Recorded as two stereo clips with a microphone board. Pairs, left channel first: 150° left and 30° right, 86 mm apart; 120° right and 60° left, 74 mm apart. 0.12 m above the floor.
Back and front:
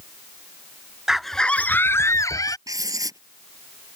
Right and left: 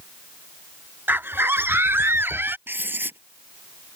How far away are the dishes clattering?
I don't hear dishes clattering.